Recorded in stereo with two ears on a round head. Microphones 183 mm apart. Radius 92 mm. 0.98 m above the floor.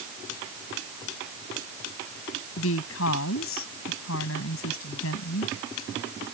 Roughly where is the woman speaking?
Left.